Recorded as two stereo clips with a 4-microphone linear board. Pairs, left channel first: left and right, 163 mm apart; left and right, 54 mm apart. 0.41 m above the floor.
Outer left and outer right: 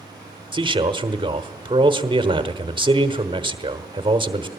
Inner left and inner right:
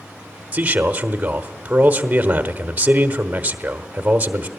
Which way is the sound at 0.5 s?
30° right (ahead or behind).